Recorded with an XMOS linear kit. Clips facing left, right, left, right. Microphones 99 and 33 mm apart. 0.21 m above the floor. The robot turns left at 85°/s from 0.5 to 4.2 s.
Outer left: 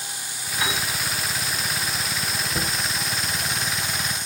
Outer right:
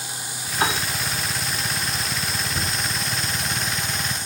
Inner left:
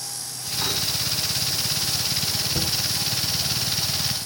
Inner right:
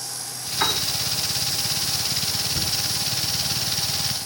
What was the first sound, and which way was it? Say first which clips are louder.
A piano: outer right 4 dB, inner right 4 dB; 40° right (ahead or behind).